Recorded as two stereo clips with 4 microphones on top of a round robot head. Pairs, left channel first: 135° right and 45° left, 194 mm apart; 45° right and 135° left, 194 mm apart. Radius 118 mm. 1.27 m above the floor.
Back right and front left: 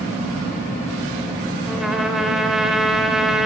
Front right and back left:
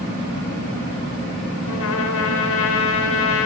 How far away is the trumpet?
About 4.5 m.